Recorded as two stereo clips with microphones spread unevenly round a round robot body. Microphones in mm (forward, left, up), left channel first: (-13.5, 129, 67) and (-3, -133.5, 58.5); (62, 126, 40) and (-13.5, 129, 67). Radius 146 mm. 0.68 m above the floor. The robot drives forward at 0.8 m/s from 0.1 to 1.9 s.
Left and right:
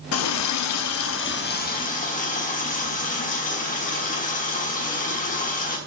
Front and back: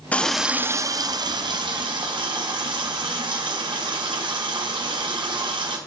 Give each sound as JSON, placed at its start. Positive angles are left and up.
{"t": 0.1, "sound": "a running tap", "azimuth_deg": 60, "distance_m": 0.7}